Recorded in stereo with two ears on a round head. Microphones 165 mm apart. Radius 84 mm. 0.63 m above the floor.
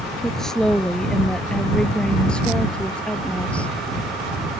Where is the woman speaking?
5° left (ahead or behind).